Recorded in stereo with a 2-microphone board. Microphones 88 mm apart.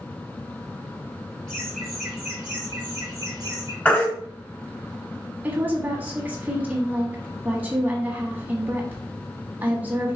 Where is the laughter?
5° left (ahead or behind), 2.5 m; by 3.8 s 45° right (ahead or behind), 1.8 m.